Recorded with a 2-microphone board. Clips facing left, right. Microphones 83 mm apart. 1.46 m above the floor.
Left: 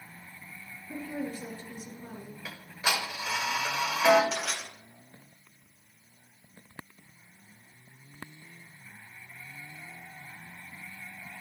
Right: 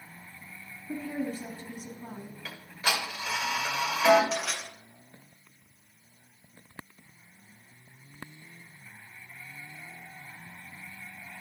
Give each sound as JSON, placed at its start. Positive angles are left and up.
{"t": 0.9, "sound": "a woman speaking", "side_deg": -50, "distance_m": 3.0}
{"t": 2.5, "sound": "ticking", "side_deg": 10, "distance_m": 1.7}
{"t": 4.3, "sound": "crushing", "side_deg": 0, "distance_m": 4.0}